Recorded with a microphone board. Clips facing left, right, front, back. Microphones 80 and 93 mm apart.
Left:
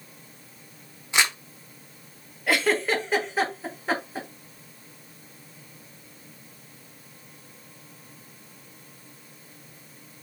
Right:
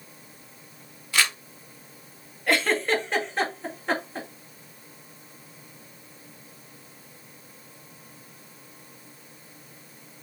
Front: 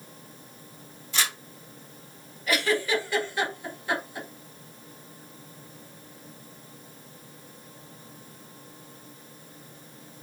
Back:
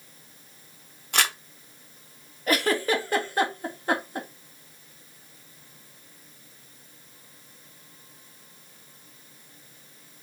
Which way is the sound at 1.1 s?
155° left.